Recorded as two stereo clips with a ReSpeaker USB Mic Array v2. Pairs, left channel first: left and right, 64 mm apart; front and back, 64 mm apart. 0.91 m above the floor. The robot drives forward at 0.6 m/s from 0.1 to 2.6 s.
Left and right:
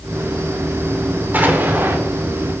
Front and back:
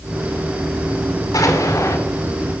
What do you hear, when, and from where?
1.3 s an explosion: 25° right, 1.4 m; by 2.0 s 35° right, 1.1 m